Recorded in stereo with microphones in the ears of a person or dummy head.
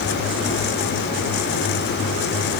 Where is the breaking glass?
I don't hear breaking glass.